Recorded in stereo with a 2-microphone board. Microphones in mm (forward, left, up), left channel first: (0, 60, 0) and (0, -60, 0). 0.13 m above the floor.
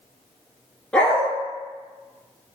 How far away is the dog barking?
About 0.5 m.